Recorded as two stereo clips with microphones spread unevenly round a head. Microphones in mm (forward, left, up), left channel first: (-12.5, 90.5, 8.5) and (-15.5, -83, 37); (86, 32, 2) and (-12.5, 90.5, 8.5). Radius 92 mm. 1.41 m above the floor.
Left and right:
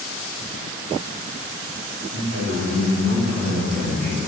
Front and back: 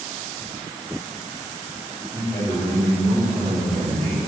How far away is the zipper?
I don't hear a zipper.